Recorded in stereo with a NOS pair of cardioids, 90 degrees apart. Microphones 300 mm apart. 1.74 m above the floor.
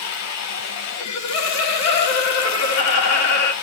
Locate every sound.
0.0 s running water: 65° left, 1.7 m
1.0 s laughter: 60° left, 3 m